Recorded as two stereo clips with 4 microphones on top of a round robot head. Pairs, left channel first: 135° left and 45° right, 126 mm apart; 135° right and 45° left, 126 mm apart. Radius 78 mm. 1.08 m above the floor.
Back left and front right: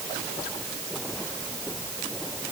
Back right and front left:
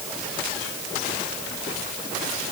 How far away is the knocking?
No knocking in this recording.